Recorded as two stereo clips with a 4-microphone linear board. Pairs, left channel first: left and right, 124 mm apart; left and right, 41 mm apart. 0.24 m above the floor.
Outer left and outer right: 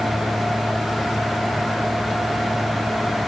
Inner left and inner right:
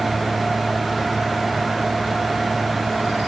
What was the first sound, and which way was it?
Only background noise.